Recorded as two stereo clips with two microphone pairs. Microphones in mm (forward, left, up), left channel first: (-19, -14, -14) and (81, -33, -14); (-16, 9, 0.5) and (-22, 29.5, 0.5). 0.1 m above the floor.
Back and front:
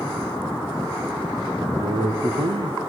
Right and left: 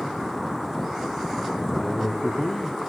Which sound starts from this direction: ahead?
A man speaking, at 1.7 s.